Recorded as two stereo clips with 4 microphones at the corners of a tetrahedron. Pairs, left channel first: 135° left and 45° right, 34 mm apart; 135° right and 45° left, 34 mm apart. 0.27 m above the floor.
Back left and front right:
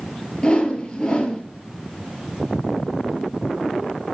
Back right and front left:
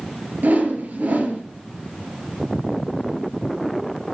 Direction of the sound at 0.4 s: 75° left.